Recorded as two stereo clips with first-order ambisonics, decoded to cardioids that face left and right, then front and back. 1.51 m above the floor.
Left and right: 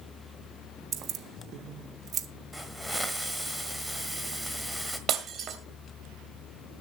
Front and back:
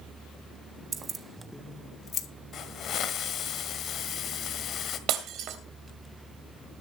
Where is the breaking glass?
145° right, 2.5 m.